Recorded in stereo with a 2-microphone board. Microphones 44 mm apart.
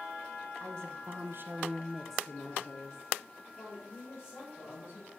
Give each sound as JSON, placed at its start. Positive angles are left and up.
{"t": 0.6, "sound": "a woman speaking", "side_deg": -80, "distance_m": 1.2}